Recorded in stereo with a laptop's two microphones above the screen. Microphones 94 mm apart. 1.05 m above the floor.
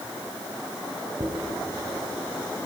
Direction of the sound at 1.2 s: 40° right (ahead or behind).